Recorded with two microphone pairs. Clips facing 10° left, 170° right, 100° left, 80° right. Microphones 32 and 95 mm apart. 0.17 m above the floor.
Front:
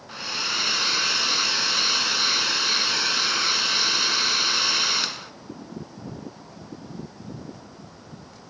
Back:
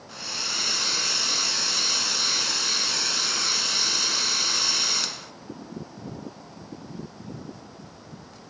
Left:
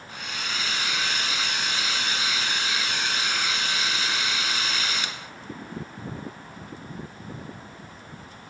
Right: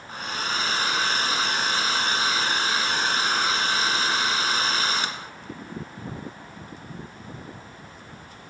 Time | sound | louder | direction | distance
0.1 | a hair dryer | front 4 dB, right 5 dB | 45° right | 1.4 m